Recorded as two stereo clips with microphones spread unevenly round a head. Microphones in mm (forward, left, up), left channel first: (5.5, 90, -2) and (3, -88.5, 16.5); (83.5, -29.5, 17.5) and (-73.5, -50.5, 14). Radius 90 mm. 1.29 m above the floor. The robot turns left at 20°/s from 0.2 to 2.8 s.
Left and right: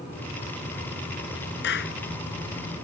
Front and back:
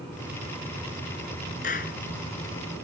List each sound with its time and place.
1.6 s a clap: 60° left; by 2.0 s 55° left